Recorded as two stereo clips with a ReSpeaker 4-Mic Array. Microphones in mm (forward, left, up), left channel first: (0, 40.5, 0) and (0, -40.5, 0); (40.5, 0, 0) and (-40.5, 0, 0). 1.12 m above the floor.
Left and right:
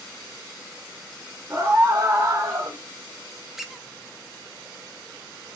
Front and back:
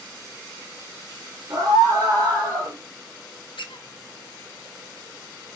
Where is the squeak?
5° right, 0.5 m.